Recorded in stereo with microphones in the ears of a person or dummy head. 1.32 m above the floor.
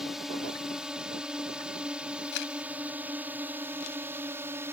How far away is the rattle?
No rattle in this recording.